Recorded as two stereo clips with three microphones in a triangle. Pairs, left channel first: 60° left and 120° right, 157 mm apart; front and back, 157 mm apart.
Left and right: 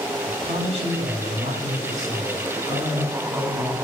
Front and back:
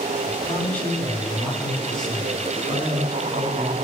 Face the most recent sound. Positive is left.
turn(degrees=-90)